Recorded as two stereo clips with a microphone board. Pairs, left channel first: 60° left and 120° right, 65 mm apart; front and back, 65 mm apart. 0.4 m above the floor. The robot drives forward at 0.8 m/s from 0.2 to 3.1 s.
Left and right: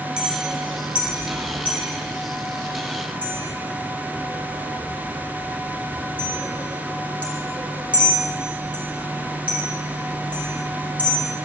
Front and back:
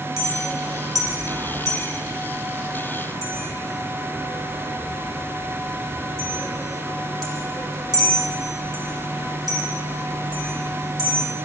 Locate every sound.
0.2 s a clink: 165° left, 1.9 m; by 11.3 s 175° left, 4 m